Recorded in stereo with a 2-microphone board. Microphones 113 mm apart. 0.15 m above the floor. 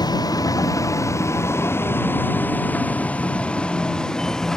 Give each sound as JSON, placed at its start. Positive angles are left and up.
{"t": 0.0, "sound": "a vehicle", "side_deg": 35}